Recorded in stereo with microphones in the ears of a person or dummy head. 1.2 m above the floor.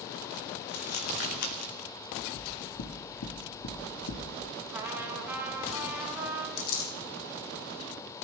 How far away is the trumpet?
About 2.5 m.